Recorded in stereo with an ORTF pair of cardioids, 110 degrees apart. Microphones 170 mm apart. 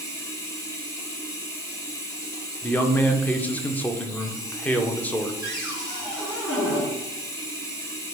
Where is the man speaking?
10° left, 0.6 m.